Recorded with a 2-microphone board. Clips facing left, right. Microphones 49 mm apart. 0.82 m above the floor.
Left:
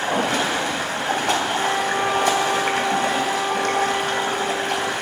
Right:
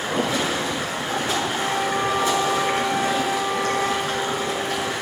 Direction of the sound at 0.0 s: 70° left (ahead or behind).